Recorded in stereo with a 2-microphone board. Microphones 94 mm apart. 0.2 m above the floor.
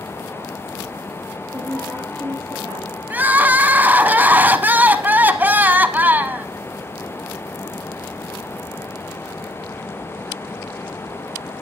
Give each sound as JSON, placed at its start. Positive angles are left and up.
{"t": 1.5, "sound": "a woman speaking", "side_deg": -35, "distance_m": 4.0}
{"t": 3.1, "sound": "crying", "side_deg": -20, "distance_m": 0.9}